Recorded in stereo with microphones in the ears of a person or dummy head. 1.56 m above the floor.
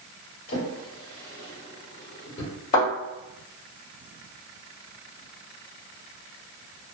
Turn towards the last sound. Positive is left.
turn(degrees=35)  # may be behind; listen again after turning